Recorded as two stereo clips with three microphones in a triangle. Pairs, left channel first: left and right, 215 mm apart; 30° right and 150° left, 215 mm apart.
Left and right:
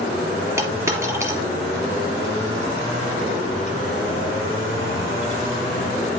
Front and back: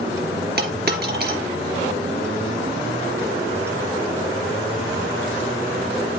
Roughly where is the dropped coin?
Behind.